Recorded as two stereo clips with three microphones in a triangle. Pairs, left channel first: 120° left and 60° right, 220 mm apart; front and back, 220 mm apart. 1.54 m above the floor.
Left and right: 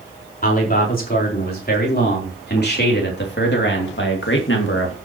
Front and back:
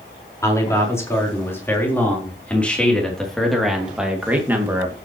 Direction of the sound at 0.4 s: 75° left.